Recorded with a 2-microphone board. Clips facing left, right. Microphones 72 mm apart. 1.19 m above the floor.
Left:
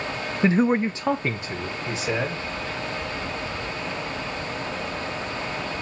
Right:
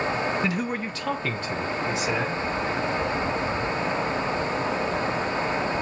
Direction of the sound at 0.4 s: 25° left (ahead or behind).